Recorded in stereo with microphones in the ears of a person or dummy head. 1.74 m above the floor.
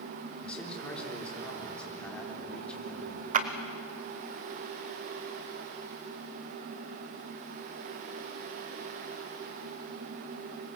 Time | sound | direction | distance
0.4 | a man speaking | 10° left (ahead or behind) | 4 m
3.3 | a clap | 45° right (ahead or behind) | 1.1 m